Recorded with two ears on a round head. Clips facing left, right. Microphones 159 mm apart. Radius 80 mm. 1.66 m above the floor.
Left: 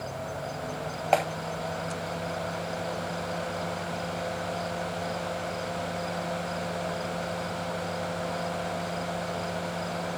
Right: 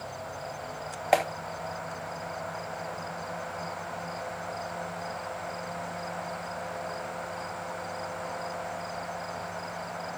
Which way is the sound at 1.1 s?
15° right (ahead or behind).